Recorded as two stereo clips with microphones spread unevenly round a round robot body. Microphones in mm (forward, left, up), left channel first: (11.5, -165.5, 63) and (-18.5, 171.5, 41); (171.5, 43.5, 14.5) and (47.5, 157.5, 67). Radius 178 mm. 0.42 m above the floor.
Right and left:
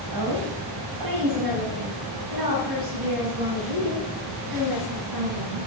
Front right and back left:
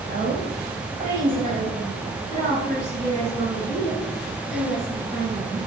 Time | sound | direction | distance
0.1 | a woman speaking | 105° left | 3 m